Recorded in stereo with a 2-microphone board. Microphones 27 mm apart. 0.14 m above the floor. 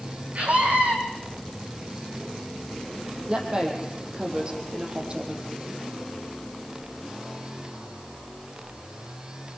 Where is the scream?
60° right (ahead or behind), 6 m.